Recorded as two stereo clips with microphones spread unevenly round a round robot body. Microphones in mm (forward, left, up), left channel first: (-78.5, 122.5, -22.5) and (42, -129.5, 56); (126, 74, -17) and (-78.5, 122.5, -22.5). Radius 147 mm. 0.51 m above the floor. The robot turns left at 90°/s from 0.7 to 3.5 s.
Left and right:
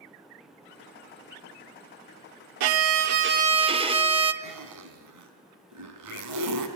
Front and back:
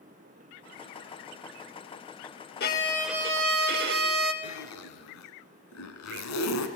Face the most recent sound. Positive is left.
turn(degrees=-25)